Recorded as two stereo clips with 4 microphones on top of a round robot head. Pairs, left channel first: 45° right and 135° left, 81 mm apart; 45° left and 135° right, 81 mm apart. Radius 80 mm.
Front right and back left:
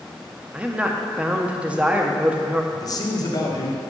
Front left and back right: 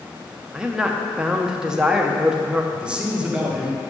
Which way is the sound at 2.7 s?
60° right.